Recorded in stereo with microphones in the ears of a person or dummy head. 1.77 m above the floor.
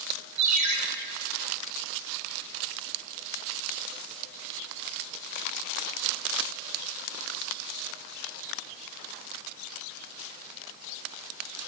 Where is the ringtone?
40° right (ahead or behind), 2.5 m.